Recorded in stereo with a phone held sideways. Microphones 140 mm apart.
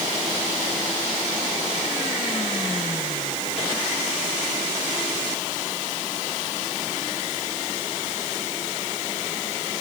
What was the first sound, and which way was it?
Only background noise.